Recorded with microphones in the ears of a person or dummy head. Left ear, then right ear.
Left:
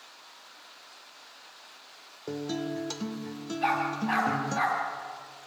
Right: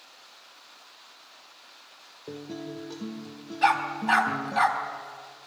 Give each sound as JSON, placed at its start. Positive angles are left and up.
{"t": 2.3, "sound": "a guitar", "side_deg": 60, "distance_m": 1.5}
{"t": 3.6, "sound": "a dog barking", "side_deg": -40, "distance_m": 3.5}